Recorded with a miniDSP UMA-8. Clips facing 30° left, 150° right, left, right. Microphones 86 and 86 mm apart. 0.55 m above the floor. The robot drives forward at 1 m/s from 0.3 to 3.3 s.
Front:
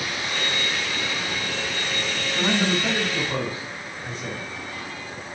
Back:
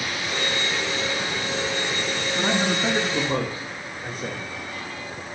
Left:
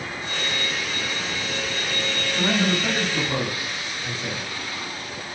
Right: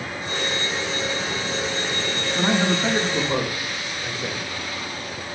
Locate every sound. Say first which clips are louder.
2.4 s a man speaking: front 1 dB, right 2 dB; 80° right, 1.3 m; by 4.5 s 145° right, 1.5 m